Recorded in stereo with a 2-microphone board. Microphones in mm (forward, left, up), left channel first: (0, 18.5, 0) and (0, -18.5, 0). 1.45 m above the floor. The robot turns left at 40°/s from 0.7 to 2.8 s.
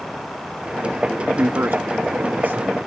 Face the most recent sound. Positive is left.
turn(degrees=-145)